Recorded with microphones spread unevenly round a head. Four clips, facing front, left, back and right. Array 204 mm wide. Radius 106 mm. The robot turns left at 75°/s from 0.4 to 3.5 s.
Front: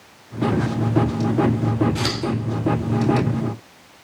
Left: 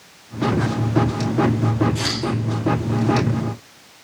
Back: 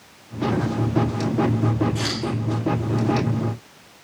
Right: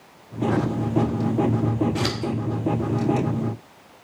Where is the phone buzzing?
I don't hear a phone buzzing.